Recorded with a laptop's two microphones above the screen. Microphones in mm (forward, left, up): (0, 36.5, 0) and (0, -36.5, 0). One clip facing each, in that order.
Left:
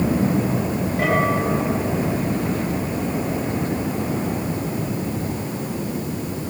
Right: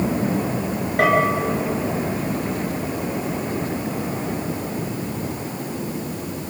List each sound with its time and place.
1.0 s a bell: 55° right (ahead or behind), 9 m